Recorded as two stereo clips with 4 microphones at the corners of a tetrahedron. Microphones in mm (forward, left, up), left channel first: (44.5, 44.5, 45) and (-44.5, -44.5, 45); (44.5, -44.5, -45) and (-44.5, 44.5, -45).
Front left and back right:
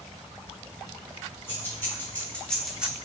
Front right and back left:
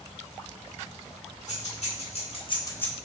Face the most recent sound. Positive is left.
turn(degrees=-125)